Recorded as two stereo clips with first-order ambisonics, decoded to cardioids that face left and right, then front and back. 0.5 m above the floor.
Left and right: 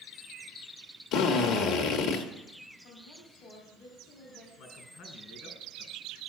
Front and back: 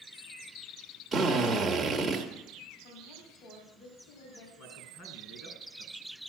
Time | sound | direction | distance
1.1 | a drill | 105° left | 1.6 m
2.8 | a woman speaking | 30° left | 4 m
4.6 | a man speaking | 50° left | 4.5 m